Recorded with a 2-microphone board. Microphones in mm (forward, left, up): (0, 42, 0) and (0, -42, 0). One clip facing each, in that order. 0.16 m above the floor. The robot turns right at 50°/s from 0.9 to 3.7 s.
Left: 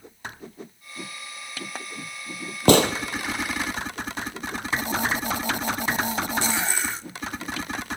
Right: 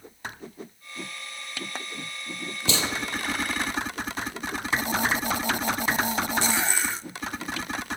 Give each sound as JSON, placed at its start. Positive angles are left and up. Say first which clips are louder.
{"t": 2.7, "sound": "a gunshot", "louder": "left 13 dB", "side_deg": 55, "distance_m": 1.0}